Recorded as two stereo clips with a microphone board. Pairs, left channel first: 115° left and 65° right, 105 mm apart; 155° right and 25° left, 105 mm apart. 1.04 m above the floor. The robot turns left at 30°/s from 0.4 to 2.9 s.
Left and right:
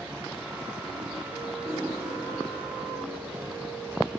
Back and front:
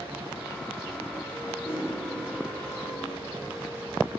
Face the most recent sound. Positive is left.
turn(degrees=-170)